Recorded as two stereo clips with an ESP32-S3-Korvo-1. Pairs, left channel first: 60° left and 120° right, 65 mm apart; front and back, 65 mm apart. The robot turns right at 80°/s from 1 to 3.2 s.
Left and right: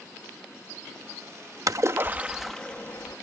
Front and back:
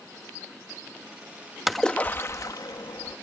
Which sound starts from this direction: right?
A splash, at 1.7 s.